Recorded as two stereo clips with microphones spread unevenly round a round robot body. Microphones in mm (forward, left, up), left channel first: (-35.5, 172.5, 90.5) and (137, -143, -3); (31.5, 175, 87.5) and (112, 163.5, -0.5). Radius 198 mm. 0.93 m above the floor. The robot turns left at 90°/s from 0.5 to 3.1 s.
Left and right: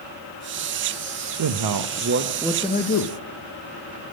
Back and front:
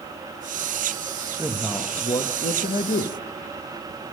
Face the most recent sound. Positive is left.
turn(degrees=165)